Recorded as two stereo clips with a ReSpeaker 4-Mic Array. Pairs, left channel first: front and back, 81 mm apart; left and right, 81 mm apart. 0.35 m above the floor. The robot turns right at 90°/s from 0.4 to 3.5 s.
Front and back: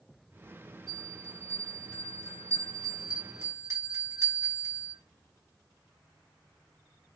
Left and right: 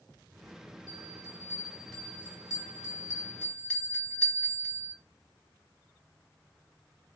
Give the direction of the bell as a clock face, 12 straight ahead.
3 o'clock.